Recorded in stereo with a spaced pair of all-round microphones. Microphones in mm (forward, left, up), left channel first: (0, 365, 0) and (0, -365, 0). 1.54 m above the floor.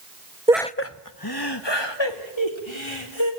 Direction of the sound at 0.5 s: 10° right (ahead or behind).